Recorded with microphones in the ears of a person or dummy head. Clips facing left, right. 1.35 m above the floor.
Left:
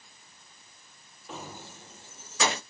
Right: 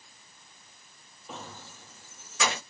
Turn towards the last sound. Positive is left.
turn(degrees=35)  # may be behind; listen again after turning